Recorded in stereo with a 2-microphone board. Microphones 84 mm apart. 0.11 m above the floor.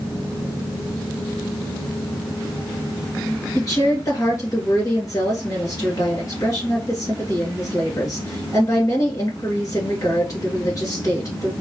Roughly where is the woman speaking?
Left.